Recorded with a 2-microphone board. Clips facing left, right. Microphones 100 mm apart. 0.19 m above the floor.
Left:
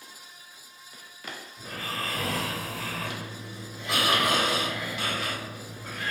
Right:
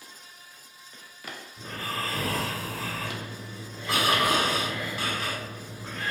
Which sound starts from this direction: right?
Snoring, at 1.6 s.